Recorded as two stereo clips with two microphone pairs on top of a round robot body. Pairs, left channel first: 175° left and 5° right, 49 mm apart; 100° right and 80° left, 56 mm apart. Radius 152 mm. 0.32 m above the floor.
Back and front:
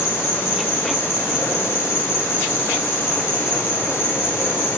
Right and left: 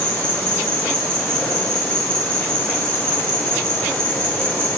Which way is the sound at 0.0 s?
170° right.